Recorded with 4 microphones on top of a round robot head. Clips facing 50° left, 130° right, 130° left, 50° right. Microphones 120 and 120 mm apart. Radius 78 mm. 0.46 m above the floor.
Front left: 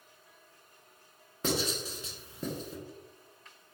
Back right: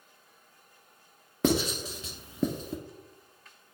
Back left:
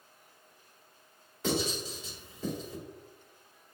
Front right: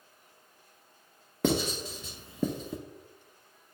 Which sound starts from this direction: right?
Writing, at 1.4 s.